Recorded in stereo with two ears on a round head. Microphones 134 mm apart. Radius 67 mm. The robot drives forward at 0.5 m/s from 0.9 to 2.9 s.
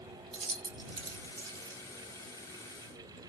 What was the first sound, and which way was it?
Keys jangling, 35° right (ahead or behind).